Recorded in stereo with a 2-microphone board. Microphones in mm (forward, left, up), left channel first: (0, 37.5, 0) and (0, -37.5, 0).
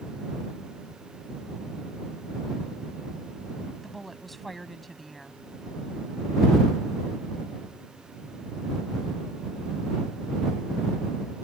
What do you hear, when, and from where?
3.8 s a woman speaking: centre (ahead or behind)